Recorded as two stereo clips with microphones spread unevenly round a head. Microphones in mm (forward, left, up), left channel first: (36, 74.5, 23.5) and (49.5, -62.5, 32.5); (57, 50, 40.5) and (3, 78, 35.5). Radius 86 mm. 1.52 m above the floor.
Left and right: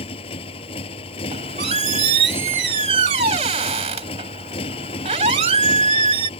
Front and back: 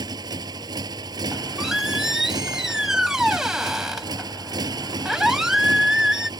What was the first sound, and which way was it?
A motorcycle, 155° left.